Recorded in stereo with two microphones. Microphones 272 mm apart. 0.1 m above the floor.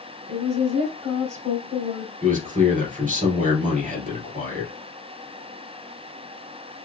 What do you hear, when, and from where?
0.3 s a woman speaking: 25° right (ahead or behind), 2.5 m
2.2 s a man speaking: 30° right (ahead or behind), 2 m